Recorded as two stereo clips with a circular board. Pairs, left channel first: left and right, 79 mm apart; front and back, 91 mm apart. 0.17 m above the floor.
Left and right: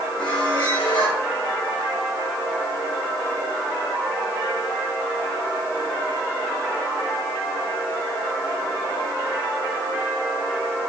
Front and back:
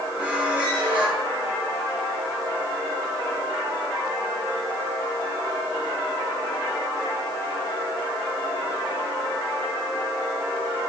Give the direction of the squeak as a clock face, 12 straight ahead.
8 o'clock.